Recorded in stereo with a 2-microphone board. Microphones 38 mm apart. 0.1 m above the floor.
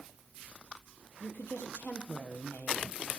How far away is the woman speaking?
About 2 m.